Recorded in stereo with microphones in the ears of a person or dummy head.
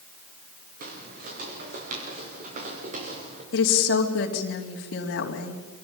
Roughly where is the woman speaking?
Left.